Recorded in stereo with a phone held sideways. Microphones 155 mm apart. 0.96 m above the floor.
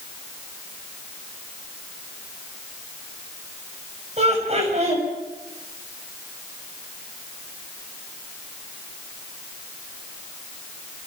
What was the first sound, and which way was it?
Laughter, 45° right (ahead or behind).